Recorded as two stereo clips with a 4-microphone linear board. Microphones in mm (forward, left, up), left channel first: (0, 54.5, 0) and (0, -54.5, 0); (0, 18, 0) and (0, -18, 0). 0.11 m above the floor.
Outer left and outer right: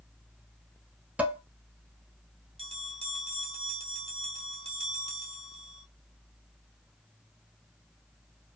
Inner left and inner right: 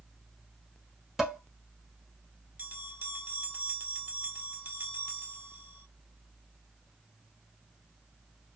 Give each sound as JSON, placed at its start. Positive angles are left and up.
{"t": 1.2, "sound": "dishes clattering", "side_deg": -10, "distance_m": 1.0}
{"t": 2.6, "sound": "a bell", "side_deg": -65, "distance_m": 1.0}